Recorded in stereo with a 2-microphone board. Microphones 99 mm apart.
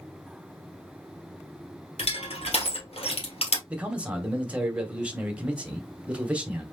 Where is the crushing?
80° left, 2 m.